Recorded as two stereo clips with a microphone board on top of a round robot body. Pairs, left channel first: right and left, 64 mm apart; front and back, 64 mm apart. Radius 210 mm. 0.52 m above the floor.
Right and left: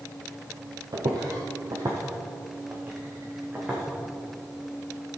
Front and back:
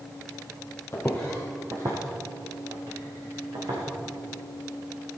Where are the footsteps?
55° left, 0.8 m; by 3.8 s 165° left, 3 m.